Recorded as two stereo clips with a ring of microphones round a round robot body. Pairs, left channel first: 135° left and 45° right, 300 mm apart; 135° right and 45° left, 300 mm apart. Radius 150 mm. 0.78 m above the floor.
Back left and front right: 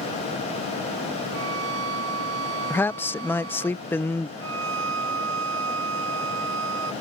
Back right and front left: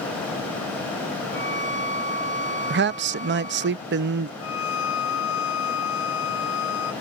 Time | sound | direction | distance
1.3 | a violin | 15° right | ?
2.7 | a man speaking | 55° left | ?
4.4 | a violin | 90° right | ?